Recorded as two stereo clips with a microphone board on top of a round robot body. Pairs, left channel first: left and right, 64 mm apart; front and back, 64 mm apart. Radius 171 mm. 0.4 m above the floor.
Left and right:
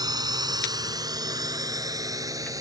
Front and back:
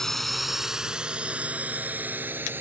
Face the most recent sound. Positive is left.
turn(degrees=-120)